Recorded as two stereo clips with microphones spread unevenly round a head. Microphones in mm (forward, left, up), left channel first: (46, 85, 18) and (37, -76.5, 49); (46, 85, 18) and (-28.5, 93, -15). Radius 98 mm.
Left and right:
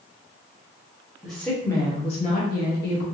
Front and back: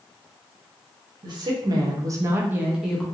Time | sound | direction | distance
1.2 | a woman speaking | 175° left | 0.9 m